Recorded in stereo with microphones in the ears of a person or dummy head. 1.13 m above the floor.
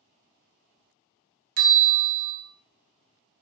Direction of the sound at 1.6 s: 50° right (ahead or behind).